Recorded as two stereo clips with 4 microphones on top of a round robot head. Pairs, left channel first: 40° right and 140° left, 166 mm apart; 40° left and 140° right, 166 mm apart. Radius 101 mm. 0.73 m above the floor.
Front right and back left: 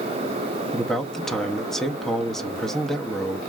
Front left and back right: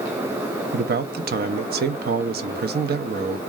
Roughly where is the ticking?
No ticking in this recording.